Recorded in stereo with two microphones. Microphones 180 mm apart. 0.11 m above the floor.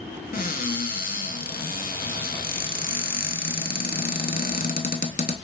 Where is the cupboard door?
50° left (ahead or behind), 0.5 m.